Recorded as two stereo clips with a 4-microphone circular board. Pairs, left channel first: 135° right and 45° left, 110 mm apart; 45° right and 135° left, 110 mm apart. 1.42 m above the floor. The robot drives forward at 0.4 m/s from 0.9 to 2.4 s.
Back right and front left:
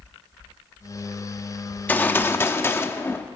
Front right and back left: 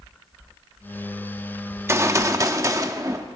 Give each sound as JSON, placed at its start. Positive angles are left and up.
{"t": 1.7, "sound": "a gunshot", "azimuth_deg": 165, "distance_m": 0.9}